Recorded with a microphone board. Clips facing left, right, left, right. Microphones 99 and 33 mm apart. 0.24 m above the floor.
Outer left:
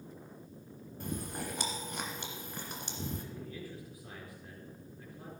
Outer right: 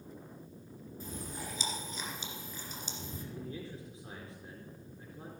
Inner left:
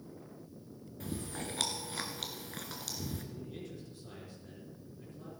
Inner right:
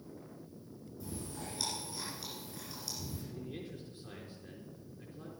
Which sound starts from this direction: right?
A man speaking, at 3.3 s.